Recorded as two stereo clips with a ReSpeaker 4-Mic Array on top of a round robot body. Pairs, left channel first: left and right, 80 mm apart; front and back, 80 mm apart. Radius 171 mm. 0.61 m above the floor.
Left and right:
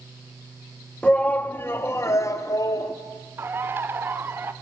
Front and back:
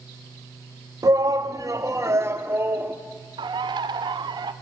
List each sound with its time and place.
1.0 s a shout: 165° left, 1.7 m; by 3.0 s 120° left, 2.5 m
3.4 s a bird: 155° right, 0.7 m